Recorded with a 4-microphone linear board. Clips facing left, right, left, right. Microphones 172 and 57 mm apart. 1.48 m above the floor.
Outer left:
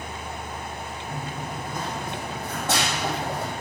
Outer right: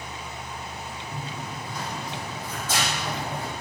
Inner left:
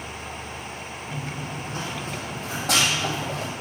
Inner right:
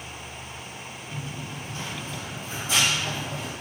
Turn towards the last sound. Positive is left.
turn(degrees=70)  # may be behind; listen again after turning